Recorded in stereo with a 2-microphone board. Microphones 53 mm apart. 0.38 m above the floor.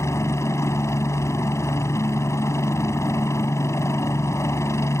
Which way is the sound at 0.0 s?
60° left (ahead or behind).